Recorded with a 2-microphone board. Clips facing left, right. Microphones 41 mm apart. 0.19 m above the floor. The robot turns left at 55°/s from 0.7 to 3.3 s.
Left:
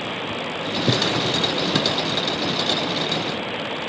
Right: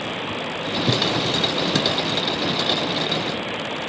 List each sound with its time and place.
0.9 s a drawer: 60° left, 1.1 m; by 2.0 s straight ahead, 1.1 m